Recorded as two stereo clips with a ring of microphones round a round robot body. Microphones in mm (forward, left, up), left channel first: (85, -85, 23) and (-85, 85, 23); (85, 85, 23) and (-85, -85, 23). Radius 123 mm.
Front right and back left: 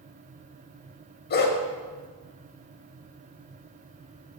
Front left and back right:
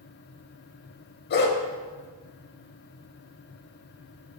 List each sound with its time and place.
1.3 s a dog barking: straight ahead, 0.7 m